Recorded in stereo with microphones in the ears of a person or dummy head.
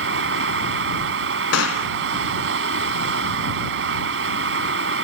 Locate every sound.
0.0 s running water: 70° right (ahead or behind)
1.5 s a gunshot: 70° left (ahead or behind)